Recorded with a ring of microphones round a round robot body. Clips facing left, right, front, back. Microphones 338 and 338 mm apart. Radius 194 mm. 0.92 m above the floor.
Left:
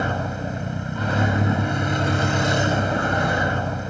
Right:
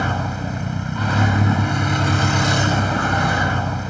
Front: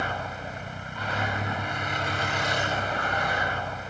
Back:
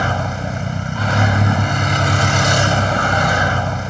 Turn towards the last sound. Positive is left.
turn(degrees=-165)